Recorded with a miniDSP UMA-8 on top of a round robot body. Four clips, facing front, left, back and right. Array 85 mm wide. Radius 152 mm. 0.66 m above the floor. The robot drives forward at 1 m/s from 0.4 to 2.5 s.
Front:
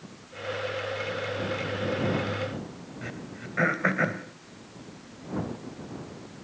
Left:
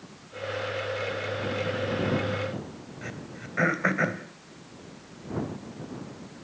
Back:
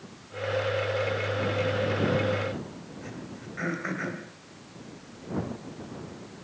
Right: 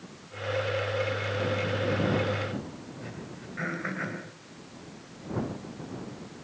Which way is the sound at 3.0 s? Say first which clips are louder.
Left 1 dB, front 2 dB; 45° left.